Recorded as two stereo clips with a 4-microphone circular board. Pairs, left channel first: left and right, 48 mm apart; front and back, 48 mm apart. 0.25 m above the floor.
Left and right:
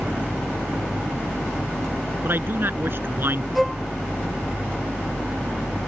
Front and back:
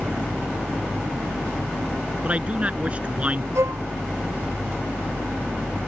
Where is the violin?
Straight behind.